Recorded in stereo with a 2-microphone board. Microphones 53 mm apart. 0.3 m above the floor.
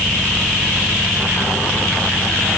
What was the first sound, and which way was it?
Only background noise.